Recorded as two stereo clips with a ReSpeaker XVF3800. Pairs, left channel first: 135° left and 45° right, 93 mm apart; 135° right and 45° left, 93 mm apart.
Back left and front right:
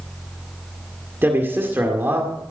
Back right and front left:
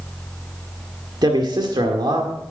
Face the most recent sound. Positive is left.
turn(degrees=20)